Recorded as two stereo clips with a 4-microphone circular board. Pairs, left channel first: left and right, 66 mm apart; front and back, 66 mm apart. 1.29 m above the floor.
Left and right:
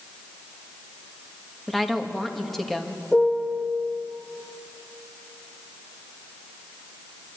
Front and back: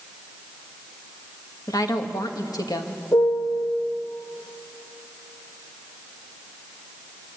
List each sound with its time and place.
1.7 s a woman speaking: 5° left, 2 m
3.1 s a piano: 15° left, 2.5 m